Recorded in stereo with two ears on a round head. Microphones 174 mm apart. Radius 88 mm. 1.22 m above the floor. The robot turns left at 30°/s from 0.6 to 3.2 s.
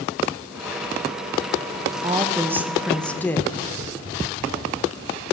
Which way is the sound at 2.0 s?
155° right.